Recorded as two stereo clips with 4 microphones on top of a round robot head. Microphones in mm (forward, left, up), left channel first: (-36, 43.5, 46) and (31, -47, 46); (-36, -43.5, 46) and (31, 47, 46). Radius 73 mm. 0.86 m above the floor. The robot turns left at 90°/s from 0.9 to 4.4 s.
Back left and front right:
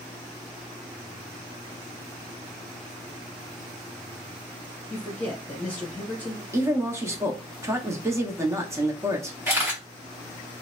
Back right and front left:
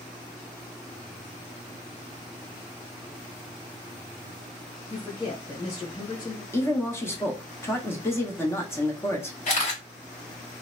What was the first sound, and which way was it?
A man speaking, 165° right.